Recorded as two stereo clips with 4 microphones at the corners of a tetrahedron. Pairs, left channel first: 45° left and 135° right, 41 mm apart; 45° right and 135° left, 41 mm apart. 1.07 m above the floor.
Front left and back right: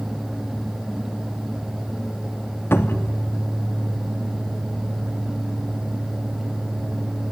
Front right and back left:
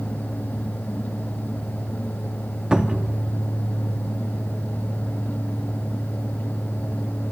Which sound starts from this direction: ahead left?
A cupboard door, at 2.7 s.